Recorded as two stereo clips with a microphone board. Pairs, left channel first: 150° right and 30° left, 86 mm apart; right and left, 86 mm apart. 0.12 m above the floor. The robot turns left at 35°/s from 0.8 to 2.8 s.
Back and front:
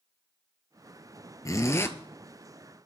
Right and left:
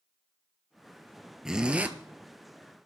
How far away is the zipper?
About 0.9 m.